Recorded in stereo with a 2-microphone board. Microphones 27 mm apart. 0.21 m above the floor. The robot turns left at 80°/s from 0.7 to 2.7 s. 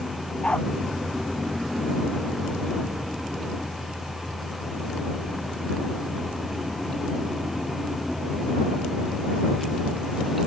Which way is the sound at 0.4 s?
40° left (ahead or behind).